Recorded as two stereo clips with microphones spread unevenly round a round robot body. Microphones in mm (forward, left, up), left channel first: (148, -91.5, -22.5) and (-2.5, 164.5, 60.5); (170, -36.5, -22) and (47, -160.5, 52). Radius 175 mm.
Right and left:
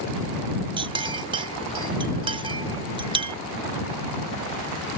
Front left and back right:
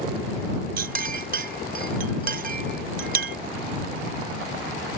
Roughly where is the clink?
Behind right.